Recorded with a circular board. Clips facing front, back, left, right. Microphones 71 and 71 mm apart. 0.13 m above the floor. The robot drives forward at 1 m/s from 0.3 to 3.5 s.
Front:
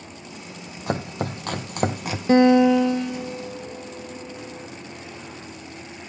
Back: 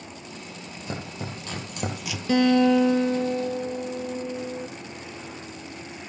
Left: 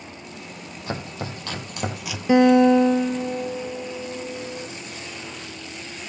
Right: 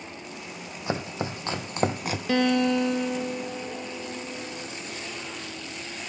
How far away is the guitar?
About 0.7 m.